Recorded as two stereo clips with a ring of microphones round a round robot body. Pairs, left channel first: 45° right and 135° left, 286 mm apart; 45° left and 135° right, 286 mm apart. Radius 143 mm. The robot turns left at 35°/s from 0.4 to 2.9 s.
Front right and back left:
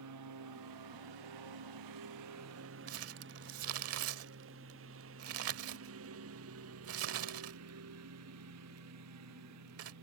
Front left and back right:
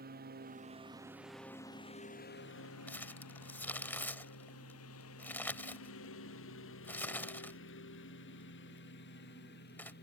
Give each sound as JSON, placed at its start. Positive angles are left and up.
{"t": 0.0, "sound": "a lawn mower", "azimuth_deg": 165}
{"t": 2.9, "sound": "crumpling", "azimuth_deg": 130}